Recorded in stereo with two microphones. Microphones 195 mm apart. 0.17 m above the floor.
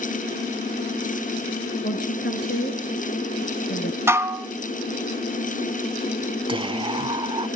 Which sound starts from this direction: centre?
Dishes clattering, at 4.1 s.